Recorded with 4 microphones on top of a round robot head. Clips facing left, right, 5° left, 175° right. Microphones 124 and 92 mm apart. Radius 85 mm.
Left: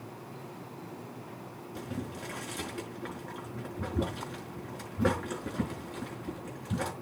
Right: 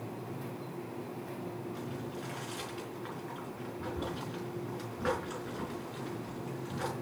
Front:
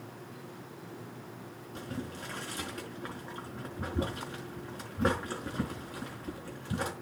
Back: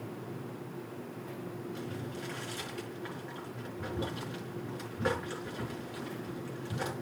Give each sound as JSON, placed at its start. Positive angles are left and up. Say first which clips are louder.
{"t": 1.8, "sound": "boiling", "louder": "left 1 dB, even", "azimuth_deg": 50, "distance_m": 4.5}